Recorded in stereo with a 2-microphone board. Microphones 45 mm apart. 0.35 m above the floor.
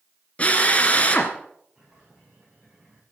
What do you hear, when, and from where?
0.4 s a drill: 30° left (ahead or behind), 2.0 m
1.8 s a bird: 20° right (ahead or behind), 8.5 m